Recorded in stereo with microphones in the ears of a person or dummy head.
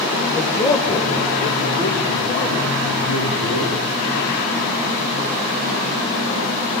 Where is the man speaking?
Centre (ahead or behind), 0.9 m; by 3.8 s 40° left (ahead or behind), 4.5 m.